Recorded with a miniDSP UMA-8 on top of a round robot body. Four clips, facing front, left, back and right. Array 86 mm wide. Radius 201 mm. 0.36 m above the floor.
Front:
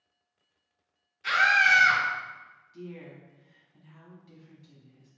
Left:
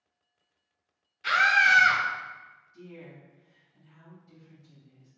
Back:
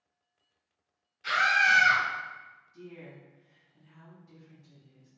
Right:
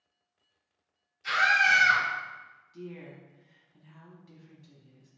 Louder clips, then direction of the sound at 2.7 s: Right 4 dB, front 4 dB; 60° right.